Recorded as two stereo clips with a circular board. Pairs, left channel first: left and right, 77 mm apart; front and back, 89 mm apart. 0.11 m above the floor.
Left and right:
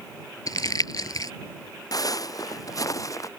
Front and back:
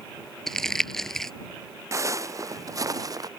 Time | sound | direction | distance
0.5 | crumpling | 85° left | ?
1.9 | footsteps | 125° left | ?